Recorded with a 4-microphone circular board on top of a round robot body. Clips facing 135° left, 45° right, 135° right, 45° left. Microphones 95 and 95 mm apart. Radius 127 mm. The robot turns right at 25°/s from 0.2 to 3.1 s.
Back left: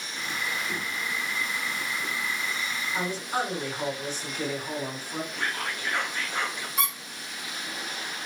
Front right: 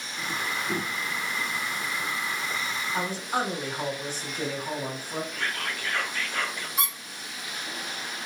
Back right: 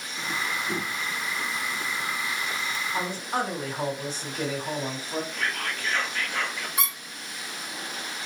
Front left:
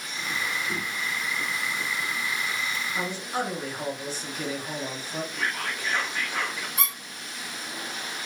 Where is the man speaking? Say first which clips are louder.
Even, back right 2 dB; 125° right, 2 m; by 5.2 s 120° right, 2 m.